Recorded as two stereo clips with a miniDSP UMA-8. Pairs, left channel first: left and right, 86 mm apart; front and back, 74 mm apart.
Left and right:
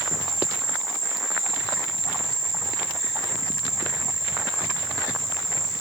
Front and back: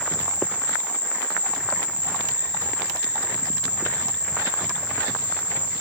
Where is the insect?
Straight ahead, 1.9 m.